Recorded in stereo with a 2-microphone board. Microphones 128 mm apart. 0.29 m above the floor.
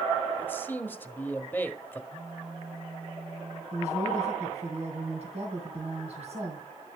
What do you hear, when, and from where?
0.4 s a man speaking: 15° left (ahead or behind), 1.3 m
2.1 s a phone buzzing: 80° right, 7.5 m
3.7 s a woman speaking: 55° right (ahead or behind), 2.5 m